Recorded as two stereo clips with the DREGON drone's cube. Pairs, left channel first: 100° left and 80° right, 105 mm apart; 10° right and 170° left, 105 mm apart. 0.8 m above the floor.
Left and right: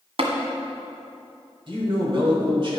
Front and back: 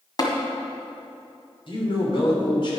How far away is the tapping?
About 1.5 m.